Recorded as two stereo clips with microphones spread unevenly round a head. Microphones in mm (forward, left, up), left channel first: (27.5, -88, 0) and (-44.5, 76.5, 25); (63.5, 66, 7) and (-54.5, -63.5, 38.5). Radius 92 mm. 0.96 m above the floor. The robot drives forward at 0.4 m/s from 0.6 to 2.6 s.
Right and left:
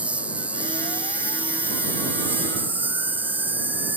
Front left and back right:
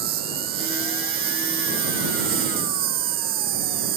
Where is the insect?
165° right; by 4.0 s 170° right.